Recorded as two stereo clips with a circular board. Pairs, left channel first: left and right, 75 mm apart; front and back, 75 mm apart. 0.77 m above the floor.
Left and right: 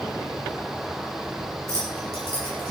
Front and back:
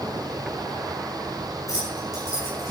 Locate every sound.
1.7 s keys jangling: 45° right, 8.5 m; by 2.7 s 55° right, 9 m